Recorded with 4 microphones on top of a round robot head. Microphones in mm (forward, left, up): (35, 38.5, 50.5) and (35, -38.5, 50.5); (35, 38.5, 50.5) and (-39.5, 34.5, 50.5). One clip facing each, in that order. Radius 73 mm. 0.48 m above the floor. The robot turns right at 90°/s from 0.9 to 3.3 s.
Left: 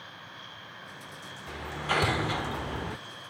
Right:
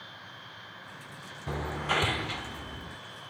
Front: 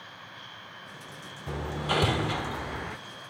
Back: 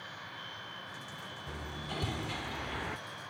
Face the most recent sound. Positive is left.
turn(degrees=125)